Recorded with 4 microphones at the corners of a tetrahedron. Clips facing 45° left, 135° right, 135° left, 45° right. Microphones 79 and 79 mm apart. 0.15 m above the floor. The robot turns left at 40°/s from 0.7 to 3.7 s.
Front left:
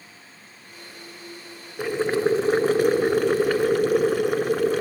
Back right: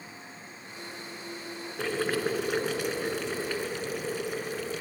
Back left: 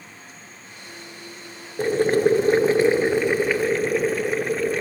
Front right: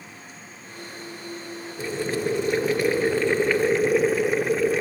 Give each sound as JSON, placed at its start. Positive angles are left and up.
{"t": 1.8, "sound": "boiling", "azimuth_deg": 120, "distance_m": 0.6}